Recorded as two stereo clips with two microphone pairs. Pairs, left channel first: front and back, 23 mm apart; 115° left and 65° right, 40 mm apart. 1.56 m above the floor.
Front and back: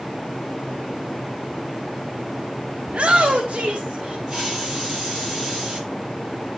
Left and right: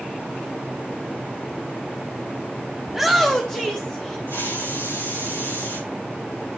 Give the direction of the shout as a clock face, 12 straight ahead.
5 o'clock.